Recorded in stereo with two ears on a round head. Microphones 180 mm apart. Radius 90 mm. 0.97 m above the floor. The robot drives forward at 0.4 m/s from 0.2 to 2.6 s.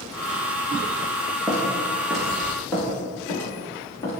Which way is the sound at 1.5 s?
5° right (ahead or behind).